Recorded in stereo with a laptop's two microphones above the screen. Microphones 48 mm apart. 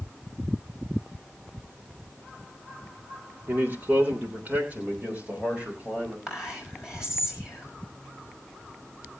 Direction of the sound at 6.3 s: 10° right (ahead or behind).